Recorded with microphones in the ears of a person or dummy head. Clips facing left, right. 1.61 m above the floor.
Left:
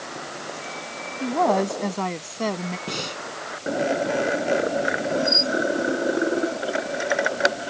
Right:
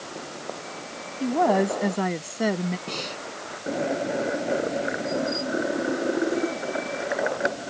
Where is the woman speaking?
10° right (ahead or behind); by 2.8 s 15° right (ahead or behind).